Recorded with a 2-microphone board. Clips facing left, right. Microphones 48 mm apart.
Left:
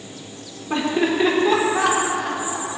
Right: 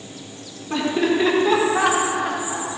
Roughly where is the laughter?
Centre.